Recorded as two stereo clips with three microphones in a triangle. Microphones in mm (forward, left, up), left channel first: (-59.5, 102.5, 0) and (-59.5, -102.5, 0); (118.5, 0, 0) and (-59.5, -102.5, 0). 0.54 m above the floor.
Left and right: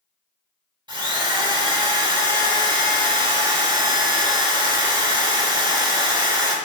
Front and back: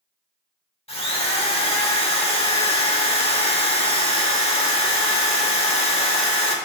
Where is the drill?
30° right, 1.1 m.